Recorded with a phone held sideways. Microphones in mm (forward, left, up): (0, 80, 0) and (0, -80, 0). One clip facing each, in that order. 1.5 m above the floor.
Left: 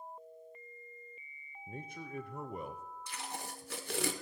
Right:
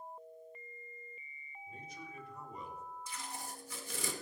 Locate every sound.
1.7 s a man speaking: 60° left (ahead or behind), 0.7 m
3.1 s tape being pulled: 85° left, 0.9 m